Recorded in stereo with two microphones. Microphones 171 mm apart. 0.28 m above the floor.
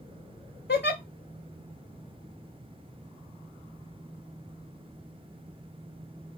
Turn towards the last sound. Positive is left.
turn(degrees=80)